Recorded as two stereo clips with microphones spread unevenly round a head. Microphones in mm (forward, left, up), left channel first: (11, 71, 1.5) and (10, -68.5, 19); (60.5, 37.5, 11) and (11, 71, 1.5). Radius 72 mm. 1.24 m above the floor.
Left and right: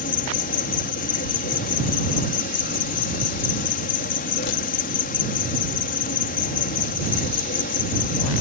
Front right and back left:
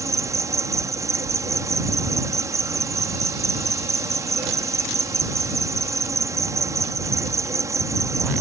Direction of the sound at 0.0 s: 115° left.